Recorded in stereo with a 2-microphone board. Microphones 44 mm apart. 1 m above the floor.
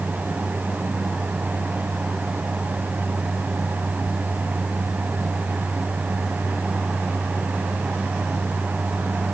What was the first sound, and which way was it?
Only background noise.